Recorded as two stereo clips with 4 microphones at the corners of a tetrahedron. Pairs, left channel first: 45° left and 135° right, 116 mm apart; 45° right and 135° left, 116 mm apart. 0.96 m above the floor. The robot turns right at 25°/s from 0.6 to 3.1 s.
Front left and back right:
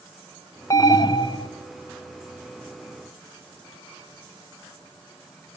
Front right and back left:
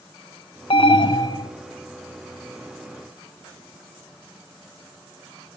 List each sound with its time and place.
0.7 s an alarm: 15° right, 0.6 m; by 1.5 s 5° left, 0.6 m